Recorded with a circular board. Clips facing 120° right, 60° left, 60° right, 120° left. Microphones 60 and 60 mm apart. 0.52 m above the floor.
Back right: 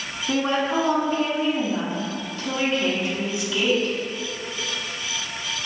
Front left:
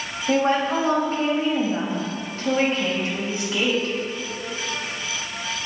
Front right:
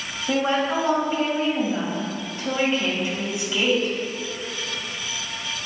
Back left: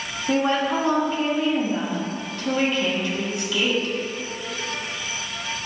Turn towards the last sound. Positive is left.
turn(degrees=10)